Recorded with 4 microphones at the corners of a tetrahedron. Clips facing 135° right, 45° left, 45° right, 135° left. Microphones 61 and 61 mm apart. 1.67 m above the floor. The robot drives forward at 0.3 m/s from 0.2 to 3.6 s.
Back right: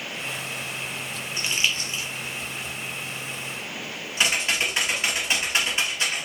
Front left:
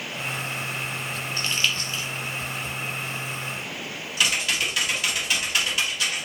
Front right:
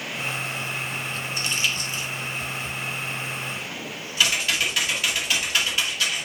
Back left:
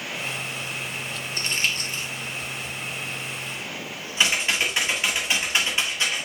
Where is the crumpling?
155° left, 1.0 m; by 2.1 s 160° left, 1.1 m.